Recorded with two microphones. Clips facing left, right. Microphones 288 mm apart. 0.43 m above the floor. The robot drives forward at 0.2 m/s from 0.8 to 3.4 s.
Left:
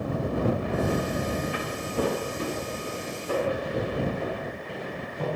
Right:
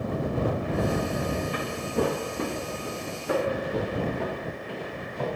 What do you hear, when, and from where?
1.5 s footsteps: 50° right (ahead or behind), 1.6 m; by 5.3 s 80° right, 3.5 m